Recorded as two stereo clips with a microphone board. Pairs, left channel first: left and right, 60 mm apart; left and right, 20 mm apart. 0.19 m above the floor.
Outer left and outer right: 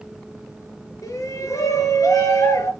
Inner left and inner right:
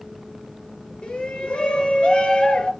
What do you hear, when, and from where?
1.0 s a shout: 65° left (ahead or behind), 3.5 m